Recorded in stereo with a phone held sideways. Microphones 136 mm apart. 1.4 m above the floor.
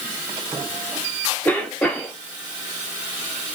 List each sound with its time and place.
1.4 s a cough: 10° left (ahead or behind), 1.0 m